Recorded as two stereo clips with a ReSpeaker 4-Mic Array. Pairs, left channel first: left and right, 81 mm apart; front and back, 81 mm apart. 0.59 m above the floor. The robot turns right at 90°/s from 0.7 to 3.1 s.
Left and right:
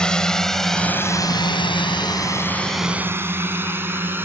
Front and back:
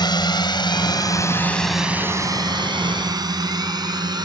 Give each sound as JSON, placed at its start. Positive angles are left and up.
{"t": 0.0, "sound": "a drone", "azimuth_deg": 10}